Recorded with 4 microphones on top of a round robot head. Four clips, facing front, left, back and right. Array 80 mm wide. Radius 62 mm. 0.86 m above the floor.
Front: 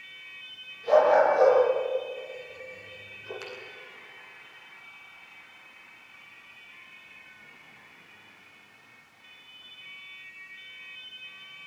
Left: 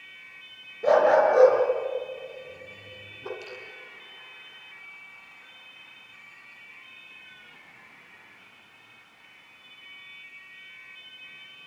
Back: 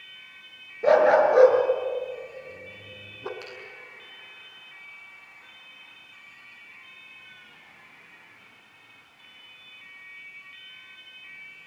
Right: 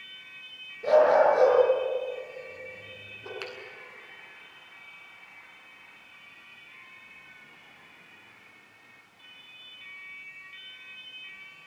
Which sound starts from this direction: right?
A finger snap, at 3.4 s.